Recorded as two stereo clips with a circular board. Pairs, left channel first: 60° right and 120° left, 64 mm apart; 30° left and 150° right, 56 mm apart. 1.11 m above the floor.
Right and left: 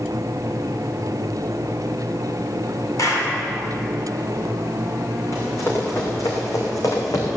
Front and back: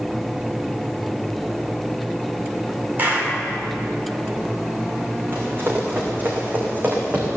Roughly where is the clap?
Right.